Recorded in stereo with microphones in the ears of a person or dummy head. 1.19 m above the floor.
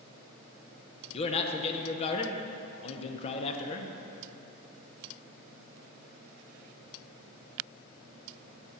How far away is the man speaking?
About 0.7 m.